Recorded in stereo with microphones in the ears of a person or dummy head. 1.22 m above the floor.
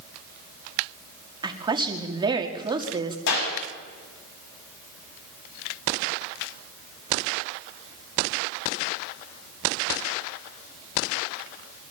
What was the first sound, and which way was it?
A woman speaking, 25° right (ahead or behind).